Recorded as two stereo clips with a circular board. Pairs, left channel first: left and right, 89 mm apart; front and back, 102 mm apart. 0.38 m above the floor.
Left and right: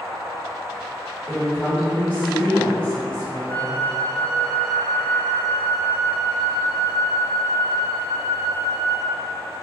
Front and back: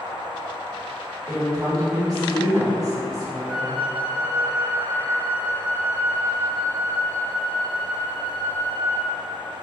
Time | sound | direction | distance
1.3 | a woman speaking | 150° left | 1.2 m
3.5 | a flute | 150° left | 1.1 m